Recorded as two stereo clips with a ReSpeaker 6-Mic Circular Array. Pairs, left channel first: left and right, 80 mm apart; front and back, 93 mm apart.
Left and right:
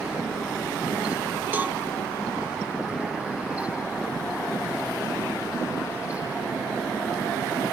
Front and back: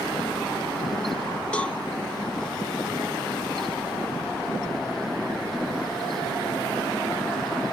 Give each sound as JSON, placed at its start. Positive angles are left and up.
{"t": 1.5, "sound": "a cowbell", "azimuth_deg": -60, "distance_m": 1.2}